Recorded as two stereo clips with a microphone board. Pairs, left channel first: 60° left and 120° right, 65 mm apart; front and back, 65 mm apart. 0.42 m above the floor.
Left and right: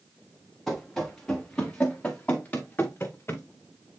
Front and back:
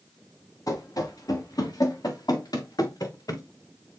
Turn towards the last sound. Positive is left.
turn(degrees=10)